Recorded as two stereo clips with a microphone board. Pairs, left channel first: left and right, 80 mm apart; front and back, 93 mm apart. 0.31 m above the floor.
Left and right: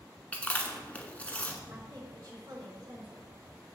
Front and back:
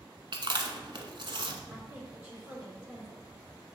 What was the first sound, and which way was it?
Chewing, 160° left.